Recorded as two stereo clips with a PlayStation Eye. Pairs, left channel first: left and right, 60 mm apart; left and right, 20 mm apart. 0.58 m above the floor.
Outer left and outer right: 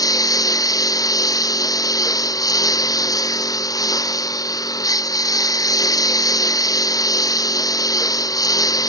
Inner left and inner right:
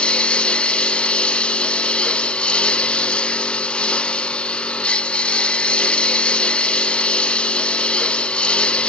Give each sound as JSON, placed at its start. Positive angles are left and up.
{"t": 0.0, "sound": "a lawn mower", "side_deg": 75}